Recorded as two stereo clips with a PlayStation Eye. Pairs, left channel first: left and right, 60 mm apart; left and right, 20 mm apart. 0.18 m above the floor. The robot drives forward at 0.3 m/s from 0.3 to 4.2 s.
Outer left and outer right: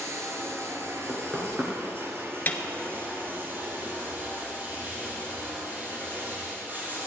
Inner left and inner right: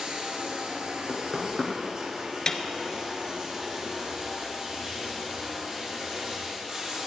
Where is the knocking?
35° right (ahead or behind), 2 m; by 1.7 s 30° right (ahead or behind), 2.5 m.